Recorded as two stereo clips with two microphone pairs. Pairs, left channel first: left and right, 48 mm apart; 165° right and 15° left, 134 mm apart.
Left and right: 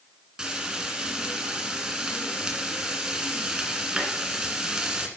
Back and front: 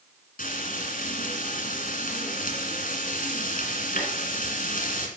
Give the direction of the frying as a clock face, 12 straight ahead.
6 o'clock.